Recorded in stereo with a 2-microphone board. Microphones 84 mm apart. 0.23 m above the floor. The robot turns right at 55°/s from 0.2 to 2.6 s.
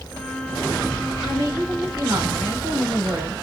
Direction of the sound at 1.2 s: 145° right.